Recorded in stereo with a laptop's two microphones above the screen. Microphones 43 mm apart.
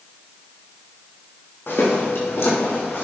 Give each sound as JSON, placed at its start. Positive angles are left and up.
{"t": 1.7, "sound": "footsteps", "side_deg": 70, "distance_m": 3.5}